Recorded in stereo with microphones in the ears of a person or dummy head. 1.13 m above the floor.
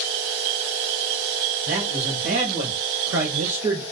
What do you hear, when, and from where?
1.7 s a man speaking: 65° right (ahead or behind), 2.5 m; by 3.8 s 10° right (ahead or behind), 0.6 m